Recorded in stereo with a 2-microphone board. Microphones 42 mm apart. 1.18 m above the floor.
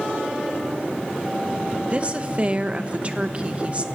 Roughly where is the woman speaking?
Right.